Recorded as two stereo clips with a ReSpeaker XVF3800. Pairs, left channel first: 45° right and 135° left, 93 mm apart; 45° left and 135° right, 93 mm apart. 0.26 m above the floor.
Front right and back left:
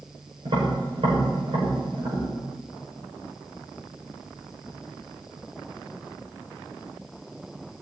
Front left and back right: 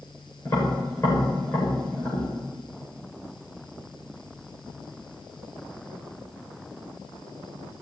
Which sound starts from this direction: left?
Tapping, at 0.5 s.